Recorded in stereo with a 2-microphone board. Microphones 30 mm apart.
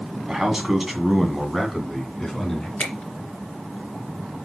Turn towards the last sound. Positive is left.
turn(degrees=55)  # may be behind; listen again after turning